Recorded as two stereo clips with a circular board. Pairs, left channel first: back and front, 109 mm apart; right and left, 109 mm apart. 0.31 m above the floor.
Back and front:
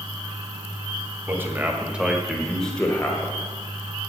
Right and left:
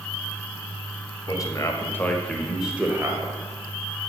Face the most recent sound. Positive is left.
turn(degrees=125)